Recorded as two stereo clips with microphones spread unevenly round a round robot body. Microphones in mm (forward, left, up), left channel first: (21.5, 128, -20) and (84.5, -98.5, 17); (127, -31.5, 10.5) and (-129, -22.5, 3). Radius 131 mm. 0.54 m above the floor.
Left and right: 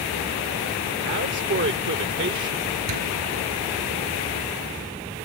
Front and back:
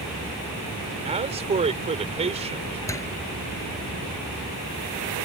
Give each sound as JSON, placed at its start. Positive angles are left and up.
{"t": 1.1, "sound": "a man speaking", "azimuth_deg": -120}
{"t": 2.9, "sound": "a door slam", "azimuth_deg": -80}